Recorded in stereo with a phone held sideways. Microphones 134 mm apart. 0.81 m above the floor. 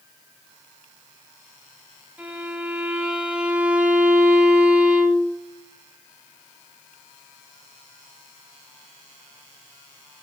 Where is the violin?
10° right (ahead or behind), 2.5 m.